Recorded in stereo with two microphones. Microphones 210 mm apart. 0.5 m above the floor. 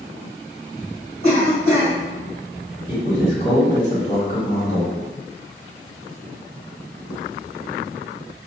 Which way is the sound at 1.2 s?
50° left (ahead or behind).